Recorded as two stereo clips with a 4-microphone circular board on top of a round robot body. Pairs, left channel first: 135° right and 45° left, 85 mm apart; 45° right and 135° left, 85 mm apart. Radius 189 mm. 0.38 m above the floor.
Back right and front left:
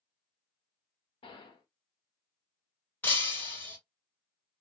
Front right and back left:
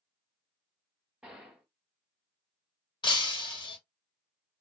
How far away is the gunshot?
About 0.6 m.